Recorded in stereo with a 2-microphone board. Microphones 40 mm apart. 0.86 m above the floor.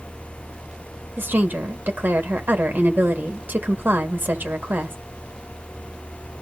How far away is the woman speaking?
About 1.3 m.